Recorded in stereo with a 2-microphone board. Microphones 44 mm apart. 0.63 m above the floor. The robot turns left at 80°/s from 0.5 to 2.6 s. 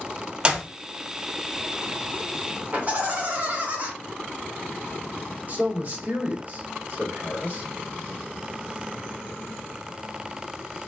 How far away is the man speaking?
About 1.8 m.